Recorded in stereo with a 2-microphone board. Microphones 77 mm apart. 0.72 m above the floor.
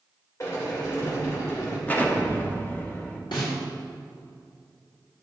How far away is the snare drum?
About 3 m.